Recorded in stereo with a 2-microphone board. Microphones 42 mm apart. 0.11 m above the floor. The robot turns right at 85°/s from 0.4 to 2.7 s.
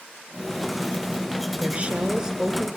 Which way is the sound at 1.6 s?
90° right.